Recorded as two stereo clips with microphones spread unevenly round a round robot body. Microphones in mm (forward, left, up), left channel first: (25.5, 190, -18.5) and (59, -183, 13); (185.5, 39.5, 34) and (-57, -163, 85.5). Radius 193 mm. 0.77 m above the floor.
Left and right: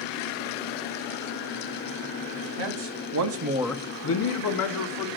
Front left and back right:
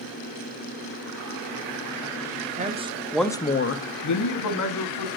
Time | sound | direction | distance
2.6 | a man speaking | 70° right | 1.4 m